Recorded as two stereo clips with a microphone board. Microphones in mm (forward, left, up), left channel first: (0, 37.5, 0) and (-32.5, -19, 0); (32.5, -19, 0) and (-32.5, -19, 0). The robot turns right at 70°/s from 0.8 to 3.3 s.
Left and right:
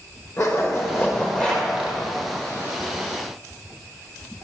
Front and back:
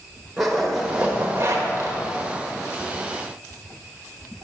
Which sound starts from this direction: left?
A zipper, at 0.4 s.